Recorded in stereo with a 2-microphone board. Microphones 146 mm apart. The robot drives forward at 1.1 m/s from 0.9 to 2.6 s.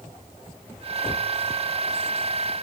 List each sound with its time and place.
Only background noise.